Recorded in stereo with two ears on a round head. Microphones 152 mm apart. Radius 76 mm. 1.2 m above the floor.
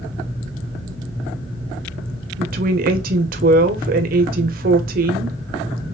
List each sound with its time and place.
2.4 s a woman speaking: 55° right (ahead or behind), 0.7 m